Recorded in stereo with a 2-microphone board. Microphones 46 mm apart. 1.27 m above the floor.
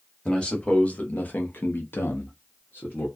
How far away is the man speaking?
About 1.2 m.